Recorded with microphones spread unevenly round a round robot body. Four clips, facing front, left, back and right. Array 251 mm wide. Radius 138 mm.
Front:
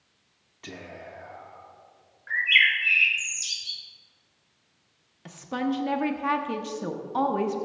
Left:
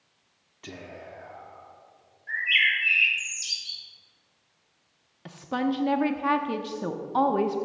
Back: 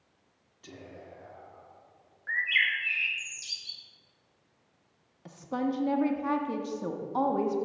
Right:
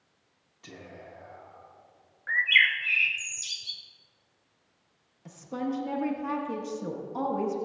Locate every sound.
0.6 s whispering: 40° left, 0.8 m
2.3 s a bird: 80° right, 0.6 m
5.2 s a woman speaking: 75° left, 0.6 m